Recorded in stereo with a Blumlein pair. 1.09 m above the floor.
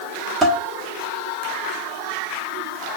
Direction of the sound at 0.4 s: 15° right.